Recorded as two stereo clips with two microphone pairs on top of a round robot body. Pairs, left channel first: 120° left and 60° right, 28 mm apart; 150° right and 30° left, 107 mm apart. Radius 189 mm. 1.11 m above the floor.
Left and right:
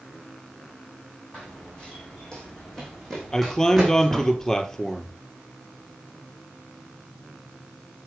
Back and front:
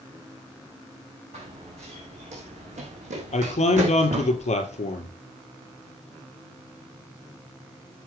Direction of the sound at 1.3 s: 60° left.